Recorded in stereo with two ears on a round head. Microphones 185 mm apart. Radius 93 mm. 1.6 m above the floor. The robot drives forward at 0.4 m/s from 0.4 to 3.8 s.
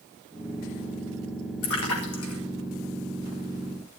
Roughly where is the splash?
Left.